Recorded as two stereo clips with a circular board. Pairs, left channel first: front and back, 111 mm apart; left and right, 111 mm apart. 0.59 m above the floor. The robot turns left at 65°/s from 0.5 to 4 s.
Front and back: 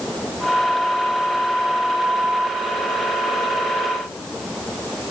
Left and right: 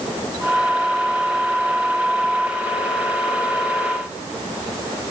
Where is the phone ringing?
No phone ringing in this recording.